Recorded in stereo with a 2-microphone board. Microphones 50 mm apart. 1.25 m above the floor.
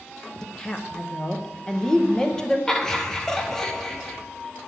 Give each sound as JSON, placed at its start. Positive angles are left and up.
{"t": 0.4, "sound": "a woman speaking", "side_deg": 15, "distance_m": 1.0}
{"t": 2.7, "sound": "laughter", "side_deg": 10, "distance_m": 1.2}